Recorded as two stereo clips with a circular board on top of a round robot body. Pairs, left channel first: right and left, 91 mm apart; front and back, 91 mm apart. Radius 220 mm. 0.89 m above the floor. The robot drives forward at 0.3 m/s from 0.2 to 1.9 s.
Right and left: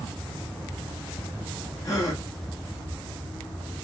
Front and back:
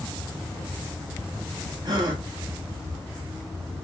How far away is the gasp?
About 1.2 m.